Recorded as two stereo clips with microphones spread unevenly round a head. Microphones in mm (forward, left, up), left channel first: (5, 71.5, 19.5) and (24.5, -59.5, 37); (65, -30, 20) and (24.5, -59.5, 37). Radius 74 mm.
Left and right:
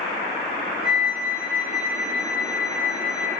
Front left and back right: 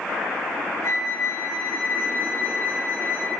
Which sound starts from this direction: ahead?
A flute, at 0.8 s.